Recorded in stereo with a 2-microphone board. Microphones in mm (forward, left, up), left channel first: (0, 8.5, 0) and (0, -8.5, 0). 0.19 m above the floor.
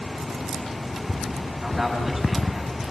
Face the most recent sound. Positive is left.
turn(degrees=-20)  # may be behind; listen again after turning